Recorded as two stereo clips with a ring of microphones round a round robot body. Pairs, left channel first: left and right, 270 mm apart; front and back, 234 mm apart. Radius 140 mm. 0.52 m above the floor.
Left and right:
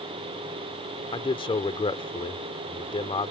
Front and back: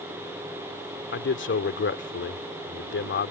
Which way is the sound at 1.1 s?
20° left.